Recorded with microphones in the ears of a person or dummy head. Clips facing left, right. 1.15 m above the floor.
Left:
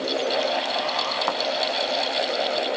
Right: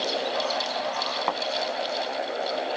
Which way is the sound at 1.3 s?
5° left (ahead or behind).